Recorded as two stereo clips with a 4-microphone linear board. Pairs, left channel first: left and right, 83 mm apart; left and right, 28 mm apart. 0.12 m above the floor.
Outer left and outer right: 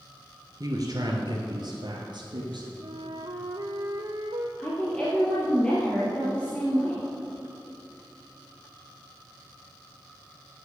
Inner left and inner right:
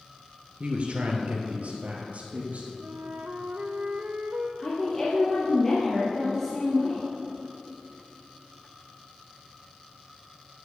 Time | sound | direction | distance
0.6 | a man speaking | 45° right (ahead or behind) | 1.8 m
2.8 | a flute | 75° right (ahead or behind) | 1.0 m
4.6 | a woman speaking | 15° left (ahead or behind) | 2.5 m